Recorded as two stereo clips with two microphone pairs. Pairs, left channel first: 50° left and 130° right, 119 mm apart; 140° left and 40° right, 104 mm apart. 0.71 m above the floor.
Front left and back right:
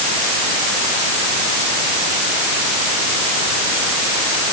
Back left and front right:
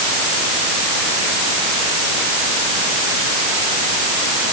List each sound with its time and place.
Only background noise.